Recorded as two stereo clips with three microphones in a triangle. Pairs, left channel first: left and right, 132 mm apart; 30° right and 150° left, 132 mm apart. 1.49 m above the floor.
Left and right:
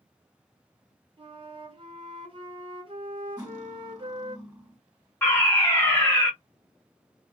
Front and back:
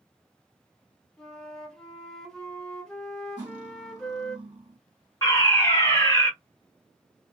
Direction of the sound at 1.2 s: 115° right.